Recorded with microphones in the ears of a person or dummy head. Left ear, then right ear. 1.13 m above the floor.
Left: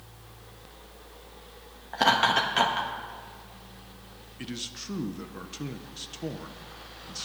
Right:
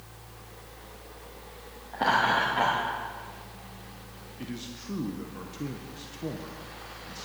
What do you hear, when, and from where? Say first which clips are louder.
1.9 s laughter: left 2 dB; 75° left (ahead or behind), 1.0 m
4.4 s a man speaking: left 4 dB; 30° left (ahead or behind), 0.6 m